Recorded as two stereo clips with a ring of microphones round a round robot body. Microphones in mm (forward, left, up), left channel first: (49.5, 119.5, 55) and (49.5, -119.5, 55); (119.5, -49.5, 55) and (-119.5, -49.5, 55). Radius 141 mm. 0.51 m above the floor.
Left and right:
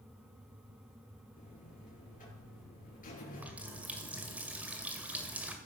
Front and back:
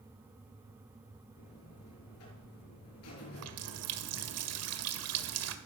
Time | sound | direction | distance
1.4 | a buzzer | 35° left | 6 m
3.3 | a running tap | 175° right | 1.8 m